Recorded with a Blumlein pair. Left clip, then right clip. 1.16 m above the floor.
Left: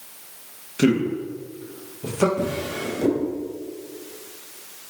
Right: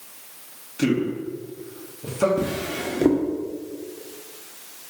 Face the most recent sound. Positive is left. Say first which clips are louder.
# even
turn(degrees=-25)